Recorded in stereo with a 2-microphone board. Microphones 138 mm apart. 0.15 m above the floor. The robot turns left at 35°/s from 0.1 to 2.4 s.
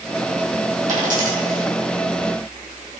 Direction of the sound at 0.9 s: 65° right (ahead or behind).